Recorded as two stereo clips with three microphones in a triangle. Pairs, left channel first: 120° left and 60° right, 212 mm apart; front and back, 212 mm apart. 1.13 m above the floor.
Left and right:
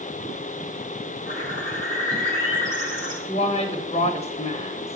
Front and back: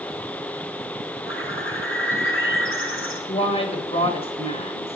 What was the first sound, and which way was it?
A bird, 10° right.